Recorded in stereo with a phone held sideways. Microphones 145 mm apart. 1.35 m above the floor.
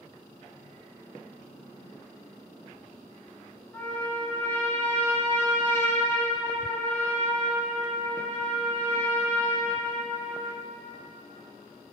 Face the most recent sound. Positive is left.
turn(degrees=15)  # may be behind; listen again after turning